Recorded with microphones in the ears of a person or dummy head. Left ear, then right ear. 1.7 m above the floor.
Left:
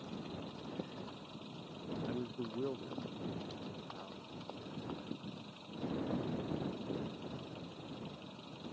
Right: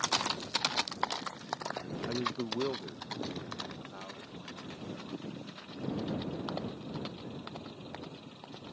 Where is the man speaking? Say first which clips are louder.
Right 12 dB; 25° right (ahead or behind); by 5.3 s 60° right (ahead or behind).